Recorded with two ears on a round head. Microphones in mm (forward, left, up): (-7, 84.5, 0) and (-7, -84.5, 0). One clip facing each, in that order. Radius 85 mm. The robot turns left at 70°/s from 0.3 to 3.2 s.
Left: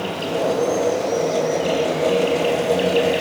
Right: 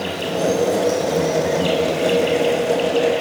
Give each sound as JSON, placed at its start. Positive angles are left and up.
{"t": 0.0, "sound": "an insect", "azimuth_deg": -20, "distance_m": 5.0}